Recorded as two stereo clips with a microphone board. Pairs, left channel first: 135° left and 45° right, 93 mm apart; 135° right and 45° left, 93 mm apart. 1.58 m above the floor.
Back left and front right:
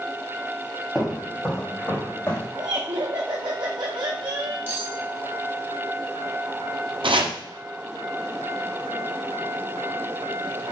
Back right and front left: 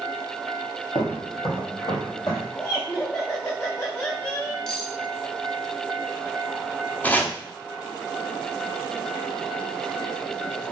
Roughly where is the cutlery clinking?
Ahead right.